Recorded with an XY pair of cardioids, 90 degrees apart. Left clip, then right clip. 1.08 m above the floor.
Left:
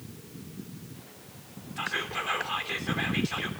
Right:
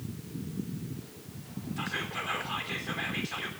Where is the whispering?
30° left, 3 m.